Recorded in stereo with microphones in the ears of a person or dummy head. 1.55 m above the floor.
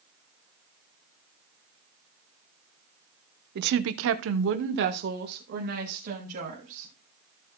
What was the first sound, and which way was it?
A woman speaking, 55° right (ahead or behind).